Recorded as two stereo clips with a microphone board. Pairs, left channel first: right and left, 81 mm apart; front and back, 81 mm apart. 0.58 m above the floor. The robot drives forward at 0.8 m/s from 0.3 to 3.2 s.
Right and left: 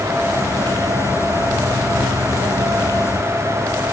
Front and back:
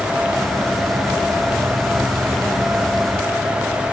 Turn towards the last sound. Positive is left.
No sound to turn to.